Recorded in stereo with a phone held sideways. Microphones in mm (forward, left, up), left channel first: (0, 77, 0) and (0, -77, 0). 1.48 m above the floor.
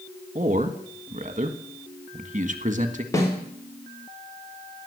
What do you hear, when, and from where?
0.3 s a man speaking: 50° right (ahead or behind), 1.7 m
3.1 s a snare drum: 20° left (ahead or behind), 3.5 m